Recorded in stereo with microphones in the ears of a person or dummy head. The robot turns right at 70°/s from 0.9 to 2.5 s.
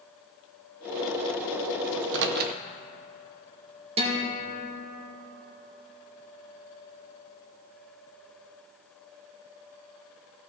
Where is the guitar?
35° right (ahead or behind), 1.8 m.